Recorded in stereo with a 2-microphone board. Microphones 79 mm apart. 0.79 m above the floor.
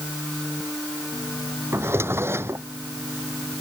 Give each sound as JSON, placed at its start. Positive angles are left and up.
{"t": 1.7, "sound": "a drawer", "side_deg": -30}